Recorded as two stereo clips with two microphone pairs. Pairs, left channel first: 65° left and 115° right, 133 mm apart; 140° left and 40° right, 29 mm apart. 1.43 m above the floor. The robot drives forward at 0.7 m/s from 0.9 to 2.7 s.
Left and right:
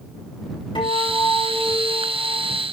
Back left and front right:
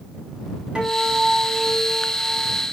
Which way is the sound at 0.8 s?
15° left.